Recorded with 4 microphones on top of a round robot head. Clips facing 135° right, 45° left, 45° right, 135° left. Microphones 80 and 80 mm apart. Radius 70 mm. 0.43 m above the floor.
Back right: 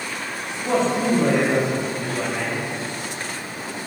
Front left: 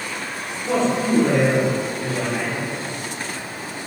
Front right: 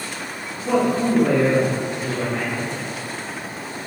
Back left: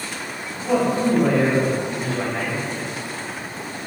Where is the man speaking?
150° right, 1.0 m; by 2.7 s 85° left, 1.4 m.